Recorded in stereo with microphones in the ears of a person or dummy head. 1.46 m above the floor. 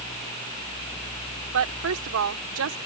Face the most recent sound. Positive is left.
turn(degrees=-75)  # may be behind; listen again after turning